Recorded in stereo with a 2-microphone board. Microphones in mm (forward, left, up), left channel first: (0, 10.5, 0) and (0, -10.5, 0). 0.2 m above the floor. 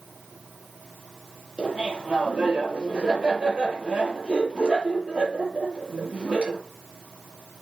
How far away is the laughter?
About 4 m.